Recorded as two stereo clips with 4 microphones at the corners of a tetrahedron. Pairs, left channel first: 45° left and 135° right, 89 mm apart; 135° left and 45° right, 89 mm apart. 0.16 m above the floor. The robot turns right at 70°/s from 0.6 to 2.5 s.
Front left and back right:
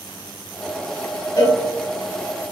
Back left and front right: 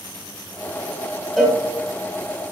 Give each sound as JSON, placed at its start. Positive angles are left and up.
{"t": 1.4, "sound": "a cowbell", "azimuth_deg": 40, "distance_m": 0.8}